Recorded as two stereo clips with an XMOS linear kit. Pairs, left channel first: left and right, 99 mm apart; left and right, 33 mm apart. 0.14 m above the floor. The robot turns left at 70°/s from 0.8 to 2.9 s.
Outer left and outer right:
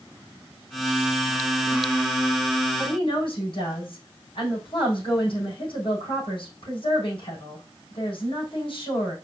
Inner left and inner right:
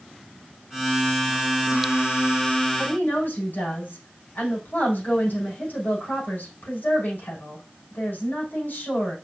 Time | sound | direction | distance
2.8 | a woman speaking | 70° left (ahead or behind) | 5.5 m